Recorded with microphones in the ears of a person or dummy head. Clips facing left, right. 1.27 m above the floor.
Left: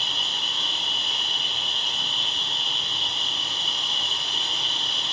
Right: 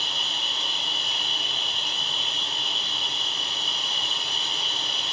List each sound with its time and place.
0.0 s an insect: 5° right (ahead or behind), 2.5 m